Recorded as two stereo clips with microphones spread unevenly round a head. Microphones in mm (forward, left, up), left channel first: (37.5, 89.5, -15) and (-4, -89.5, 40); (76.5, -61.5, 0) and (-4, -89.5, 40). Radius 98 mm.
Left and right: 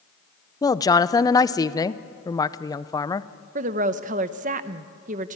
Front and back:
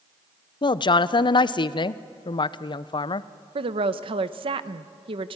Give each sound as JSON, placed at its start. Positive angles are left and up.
{"t": 0.6, "sound": "a woman speaking", "azimuth_deg": 10, "distance_m": 0.7}
{"t": 3.5, "sound": "a woman speaking", "azimuth_deg": -155, "distance_m": 0.9}